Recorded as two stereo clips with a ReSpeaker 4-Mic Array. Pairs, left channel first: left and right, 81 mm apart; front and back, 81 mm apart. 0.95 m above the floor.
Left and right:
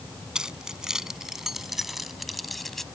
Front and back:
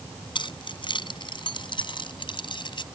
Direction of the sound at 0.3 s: 10° right.